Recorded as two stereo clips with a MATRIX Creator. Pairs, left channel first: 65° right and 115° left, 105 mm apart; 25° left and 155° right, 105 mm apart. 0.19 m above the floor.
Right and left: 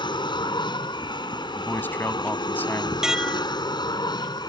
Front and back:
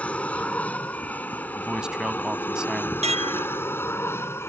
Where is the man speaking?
90° right.